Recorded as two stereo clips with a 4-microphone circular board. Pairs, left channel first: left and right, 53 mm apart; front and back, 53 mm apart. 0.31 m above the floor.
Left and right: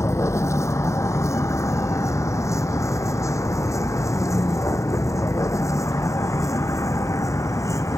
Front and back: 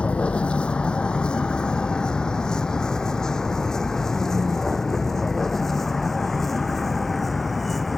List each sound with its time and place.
0.0 s a vehicle: 65° left; by 8.0 s 90° left